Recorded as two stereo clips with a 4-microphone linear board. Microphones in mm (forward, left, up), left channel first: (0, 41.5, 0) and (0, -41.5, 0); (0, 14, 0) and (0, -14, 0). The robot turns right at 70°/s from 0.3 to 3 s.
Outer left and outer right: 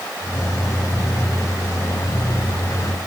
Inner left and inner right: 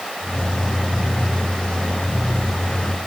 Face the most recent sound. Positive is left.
No sound to turn to.